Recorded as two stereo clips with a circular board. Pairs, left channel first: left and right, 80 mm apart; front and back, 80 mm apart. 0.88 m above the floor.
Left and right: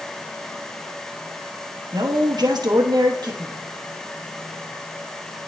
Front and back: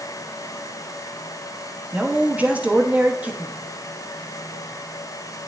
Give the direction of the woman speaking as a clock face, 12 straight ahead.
4 o'clock.